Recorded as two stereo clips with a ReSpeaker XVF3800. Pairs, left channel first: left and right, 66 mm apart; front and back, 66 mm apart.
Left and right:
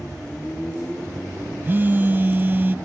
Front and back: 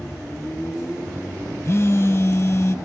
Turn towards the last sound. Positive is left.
turn(degrees=-35)